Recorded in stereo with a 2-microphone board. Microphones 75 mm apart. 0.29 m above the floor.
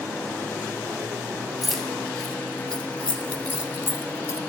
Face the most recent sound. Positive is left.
turn(degrees=40)  # may be behind; listen again after turning